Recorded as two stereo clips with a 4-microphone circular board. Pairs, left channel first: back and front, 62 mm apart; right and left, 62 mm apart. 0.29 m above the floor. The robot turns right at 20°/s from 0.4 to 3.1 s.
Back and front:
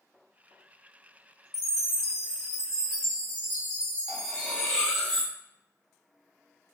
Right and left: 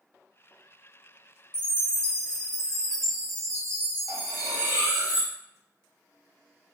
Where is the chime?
70° right, 1.6 m; by 5.1 s 40° right, 1.6 m.